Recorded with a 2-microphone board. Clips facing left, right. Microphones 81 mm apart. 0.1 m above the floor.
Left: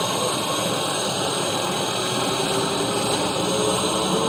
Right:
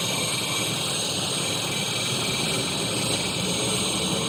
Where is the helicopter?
55° left (ahead or behind).